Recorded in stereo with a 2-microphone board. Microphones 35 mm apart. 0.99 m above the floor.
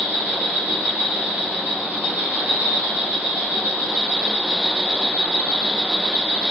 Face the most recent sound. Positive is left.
turn(degrees=-60)  # may be behind; listen again after turning